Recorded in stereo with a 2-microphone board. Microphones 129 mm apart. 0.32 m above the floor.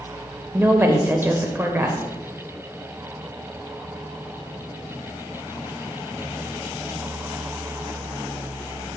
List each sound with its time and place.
0.5 s a woman speaking: 20° right (ahead or behind), 0.8 m